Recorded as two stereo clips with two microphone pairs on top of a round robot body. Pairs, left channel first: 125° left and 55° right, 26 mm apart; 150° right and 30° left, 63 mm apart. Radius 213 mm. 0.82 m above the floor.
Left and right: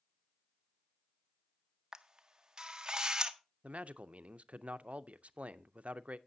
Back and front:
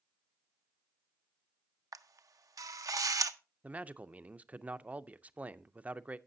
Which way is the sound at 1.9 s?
5° left.